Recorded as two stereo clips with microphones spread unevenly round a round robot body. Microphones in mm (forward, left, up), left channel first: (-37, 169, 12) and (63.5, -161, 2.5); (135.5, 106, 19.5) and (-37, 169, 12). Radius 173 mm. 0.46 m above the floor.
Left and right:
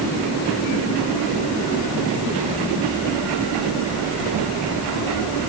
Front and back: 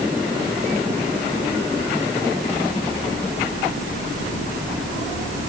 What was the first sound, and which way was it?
Only background noise.